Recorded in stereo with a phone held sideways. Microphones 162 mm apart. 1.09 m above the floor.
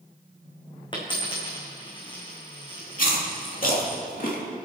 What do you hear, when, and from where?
0.9 s a dropped coin: 30° left (ahead or behind), 4 m
3.0 s chewing: 60° left (ahead or behind), 2.5 m